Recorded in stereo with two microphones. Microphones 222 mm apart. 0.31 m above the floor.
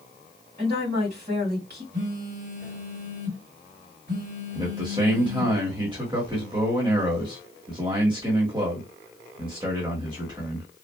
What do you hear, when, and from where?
0.6 s a woman speaking: 50° right (ahead or behind), 2 m
1.9 s a phone buzzing: 50° right (ahead or behind), 2.5 m
4.5 s a man speaking: 20° right (ahead or behind), 1.1 m